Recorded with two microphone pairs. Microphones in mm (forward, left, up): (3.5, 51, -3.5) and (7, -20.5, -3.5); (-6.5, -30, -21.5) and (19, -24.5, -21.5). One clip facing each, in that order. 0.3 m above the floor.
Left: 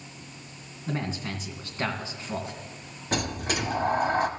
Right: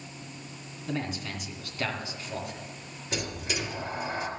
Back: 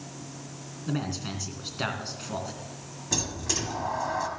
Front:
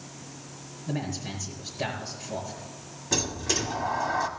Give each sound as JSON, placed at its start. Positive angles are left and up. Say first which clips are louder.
{"t": 0.9, "sound": "a man speaking", "louder": "left 1 dB, back 1 dB", "azimuth_deg": 145, "distance_m": 2.5}
{"t": 3.1, "sound": "a sliding door", "louder": "left 5 dB, front 3 dB", "azimuth_deg": 90, "distance_m": 1.3}